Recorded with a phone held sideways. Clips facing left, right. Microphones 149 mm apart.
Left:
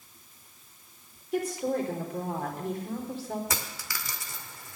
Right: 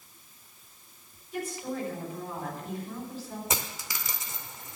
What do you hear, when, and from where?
1.3 s a woman speaking: 70° left (ahead or behind), 4 m
3.5 s a dropped coin: 20° right (ahead or behind), 0.8 m